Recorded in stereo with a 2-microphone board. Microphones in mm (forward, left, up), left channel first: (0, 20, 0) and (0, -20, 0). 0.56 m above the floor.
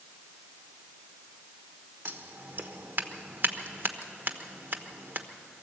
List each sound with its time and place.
2.0 s scissors: 60° right (ahead or behind), 1.2 m